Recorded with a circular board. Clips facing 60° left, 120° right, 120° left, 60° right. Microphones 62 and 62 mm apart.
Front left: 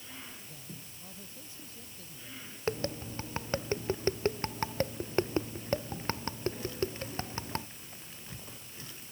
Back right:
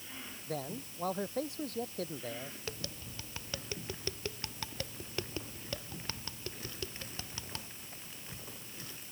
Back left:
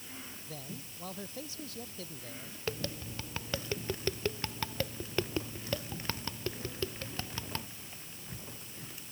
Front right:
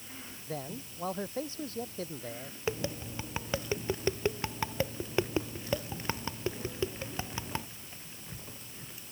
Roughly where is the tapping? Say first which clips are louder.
Front left 10 dB, front right 4 dB; ahead.